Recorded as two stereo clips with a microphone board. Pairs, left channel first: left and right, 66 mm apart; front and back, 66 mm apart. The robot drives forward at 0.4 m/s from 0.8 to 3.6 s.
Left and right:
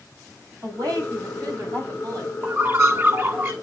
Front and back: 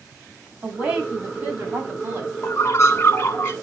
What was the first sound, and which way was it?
A woman speaking, 110° right.